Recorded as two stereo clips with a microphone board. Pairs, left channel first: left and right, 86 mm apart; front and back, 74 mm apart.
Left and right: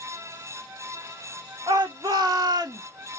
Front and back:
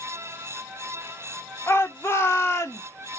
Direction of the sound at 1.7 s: 55° right.